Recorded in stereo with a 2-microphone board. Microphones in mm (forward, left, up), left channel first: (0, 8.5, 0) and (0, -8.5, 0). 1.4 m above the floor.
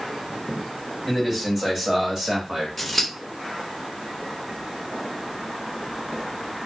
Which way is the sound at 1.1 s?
10° right (ahead or behind).